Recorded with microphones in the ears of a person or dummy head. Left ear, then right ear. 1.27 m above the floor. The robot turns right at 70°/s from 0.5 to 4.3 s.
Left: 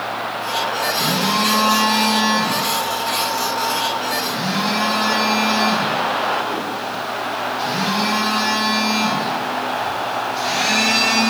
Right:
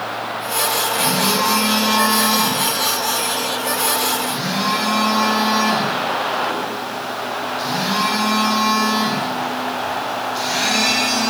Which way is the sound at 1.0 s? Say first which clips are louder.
Even; 40° left.